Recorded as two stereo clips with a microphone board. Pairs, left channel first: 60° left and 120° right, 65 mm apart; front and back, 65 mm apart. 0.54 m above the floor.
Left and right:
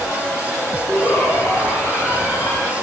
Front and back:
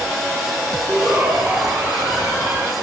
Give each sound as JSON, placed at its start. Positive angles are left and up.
{"t": 0.9, "sound": "a shout", "azimuth_deg": 105, "distance_m": 8.0}